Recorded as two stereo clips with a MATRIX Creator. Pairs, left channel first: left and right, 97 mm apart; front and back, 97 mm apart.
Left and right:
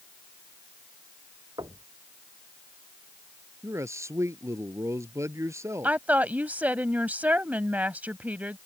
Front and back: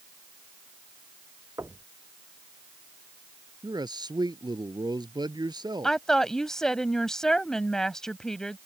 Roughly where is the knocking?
Behind right.